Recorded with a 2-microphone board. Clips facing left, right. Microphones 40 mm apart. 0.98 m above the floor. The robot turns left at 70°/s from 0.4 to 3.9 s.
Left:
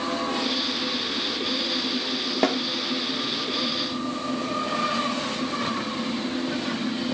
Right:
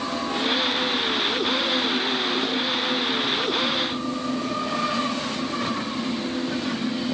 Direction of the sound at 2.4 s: 75° left (ahead or behind).